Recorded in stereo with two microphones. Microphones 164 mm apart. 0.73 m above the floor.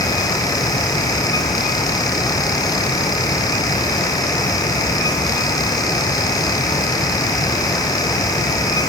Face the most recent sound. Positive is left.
No sound to turn to.